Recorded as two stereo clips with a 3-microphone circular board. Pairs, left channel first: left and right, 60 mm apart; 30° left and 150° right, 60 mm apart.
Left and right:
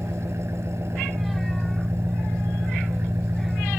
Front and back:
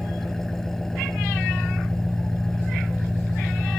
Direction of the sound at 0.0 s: 55° right.